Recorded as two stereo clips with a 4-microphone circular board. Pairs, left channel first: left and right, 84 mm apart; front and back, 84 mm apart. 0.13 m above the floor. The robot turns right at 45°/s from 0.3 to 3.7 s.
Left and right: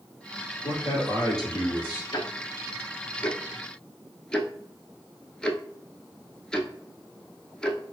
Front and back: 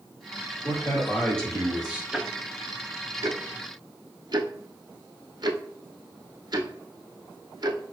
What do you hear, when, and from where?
0.6 s a man speaking: 45° left, 2.5 m; by 2.0 s 110° left, 2.5 m
2.1 s ticking: 95° left, 0.6 m; by 7.9 s 170° left, 0.6 m